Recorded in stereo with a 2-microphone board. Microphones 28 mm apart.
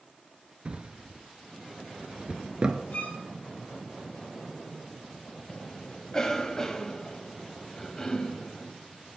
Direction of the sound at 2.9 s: 80° left.